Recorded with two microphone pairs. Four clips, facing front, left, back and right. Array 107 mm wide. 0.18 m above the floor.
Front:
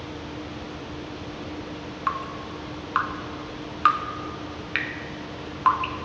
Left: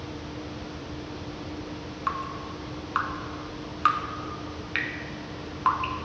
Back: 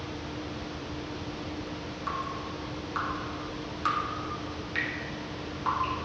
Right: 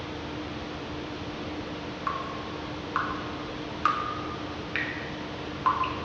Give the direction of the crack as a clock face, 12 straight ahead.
No crack in this recording.